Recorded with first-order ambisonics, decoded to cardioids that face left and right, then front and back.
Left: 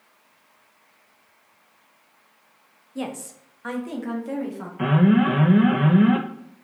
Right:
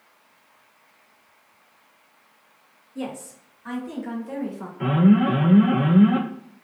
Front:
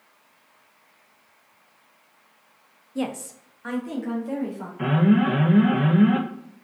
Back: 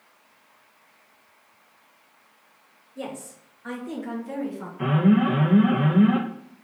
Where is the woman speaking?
25° left, 0.6 m; by 4.7 s 80° left, 1.8 m.